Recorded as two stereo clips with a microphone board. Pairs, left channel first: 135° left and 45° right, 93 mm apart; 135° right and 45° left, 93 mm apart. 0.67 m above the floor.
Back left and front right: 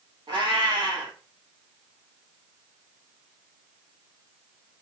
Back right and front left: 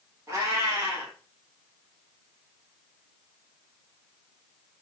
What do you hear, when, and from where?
0.3 s a cat meowing: 15° right, 2.5 m